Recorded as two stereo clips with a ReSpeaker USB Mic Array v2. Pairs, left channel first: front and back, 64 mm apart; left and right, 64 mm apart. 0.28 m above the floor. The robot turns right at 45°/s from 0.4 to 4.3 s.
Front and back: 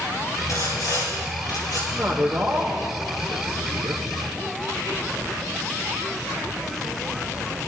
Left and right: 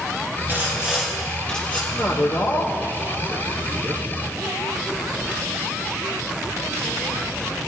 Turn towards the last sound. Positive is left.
turn(degrees=175)